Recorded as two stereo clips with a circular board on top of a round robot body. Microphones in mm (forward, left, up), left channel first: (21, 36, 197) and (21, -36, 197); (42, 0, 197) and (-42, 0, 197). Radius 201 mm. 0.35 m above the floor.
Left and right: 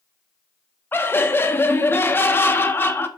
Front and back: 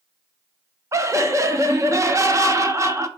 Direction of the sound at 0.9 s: 140° left.